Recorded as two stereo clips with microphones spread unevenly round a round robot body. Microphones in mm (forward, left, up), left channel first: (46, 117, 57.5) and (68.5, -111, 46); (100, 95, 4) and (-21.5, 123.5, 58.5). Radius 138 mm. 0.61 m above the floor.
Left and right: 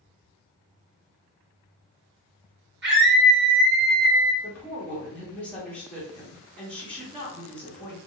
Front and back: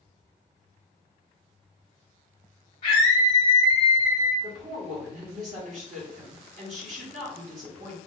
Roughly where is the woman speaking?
Behind.